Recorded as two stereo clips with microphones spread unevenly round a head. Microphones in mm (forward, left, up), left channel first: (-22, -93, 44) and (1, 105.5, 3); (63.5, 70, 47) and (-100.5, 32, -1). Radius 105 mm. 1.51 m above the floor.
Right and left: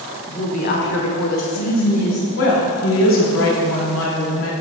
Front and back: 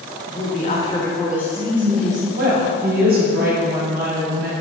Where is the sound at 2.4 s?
125° right, 1.5 m.